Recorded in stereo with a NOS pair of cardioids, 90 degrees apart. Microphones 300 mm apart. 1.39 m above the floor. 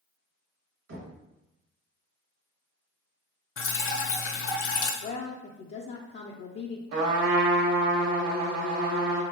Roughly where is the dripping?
Ahead left.